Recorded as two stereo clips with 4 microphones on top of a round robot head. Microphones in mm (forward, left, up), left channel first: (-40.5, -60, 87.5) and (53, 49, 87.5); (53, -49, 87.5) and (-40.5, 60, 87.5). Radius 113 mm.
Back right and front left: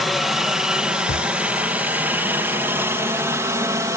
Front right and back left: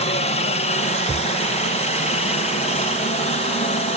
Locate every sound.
0.0 s a helicopter: 40° right; by 4.0 s 15° right
1.1 s a thud: 140° right